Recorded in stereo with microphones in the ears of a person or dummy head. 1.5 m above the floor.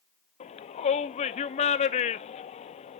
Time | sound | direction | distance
0.4 | a shout | 30° left (ahead or behind) | 0.7 m